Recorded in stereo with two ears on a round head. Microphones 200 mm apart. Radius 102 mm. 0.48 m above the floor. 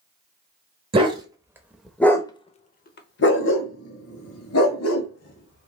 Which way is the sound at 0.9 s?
25° right (ahead or behind).